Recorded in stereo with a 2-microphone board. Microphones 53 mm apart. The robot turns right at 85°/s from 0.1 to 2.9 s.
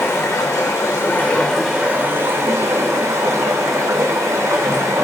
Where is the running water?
45° left, 0.8 m; by 5.0 s 75° right, 0.8 m.